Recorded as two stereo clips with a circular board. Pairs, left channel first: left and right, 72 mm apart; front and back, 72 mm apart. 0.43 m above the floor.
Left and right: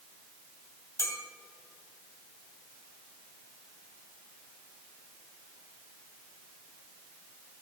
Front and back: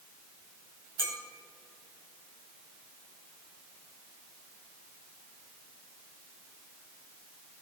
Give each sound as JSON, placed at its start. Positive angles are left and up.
{"t": 1.0, "sound": "a clink", "azimuth_deg": 125, "distance_m": 1.8}